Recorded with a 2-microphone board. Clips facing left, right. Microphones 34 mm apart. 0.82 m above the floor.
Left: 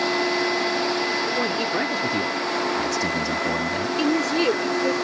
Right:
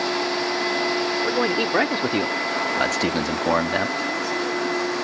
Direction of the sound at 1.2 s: 25° right (ahead or behind).